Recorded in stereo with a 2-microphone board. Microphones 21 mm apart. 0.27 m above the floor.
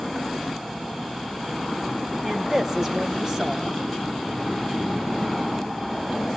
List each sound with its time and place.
2.2 s a woman speaking: 30° right (ahead or behind), 1.5 m